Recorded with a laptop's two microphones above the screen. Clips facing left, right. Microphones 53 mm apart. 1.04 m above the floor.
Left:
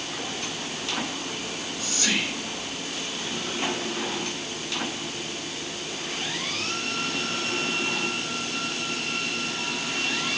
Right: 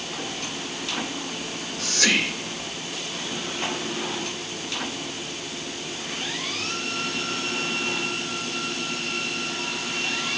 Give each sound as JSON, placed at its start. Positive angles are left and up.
{"t": 1.4, "sound": "whispering", "side_deg": -65, "distance_m": 1.6}